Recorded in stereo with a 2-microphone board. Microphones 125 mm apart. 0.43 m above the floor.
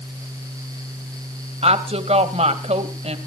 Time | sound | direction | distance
1.6 | a woman speaking | 60° right (ahead or behind) | 1.8 m